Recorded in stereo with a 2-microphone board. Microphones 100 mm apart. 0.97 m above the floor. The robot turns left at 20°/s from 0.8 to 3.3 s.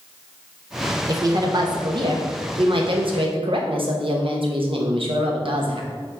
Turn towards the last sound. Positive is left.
turn(degrees=-90)